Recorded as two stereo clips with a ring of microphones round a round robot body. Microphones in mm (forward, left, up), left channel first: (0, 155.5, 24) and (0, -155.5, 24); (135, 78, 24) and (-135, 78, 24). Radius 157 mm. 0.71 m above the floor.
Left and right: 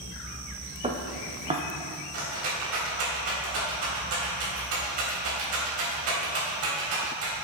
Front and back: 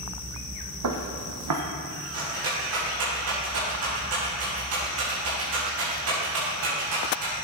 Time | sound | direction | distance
0.8 | footsteps | 160° right | 1.4 m
2.1 | a rattle | 135° right | 3.5 m